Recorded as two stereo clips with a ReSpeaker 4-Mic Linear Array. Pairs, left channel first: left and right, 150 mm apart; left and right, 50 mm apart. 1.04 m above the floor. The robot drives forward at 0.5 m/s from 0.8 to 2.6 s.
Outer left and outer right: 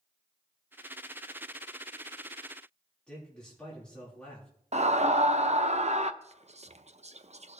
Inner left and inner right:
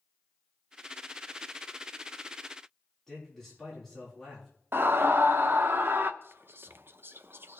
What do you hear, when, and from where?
3.1 s a man speaking: 5° left (ahead or behind), 3.5 m
4.7 s a scream: 50° right (ahead or behind), 0.8 m
6.2 s whispering: 45° right (ahead or behind), 0.6 m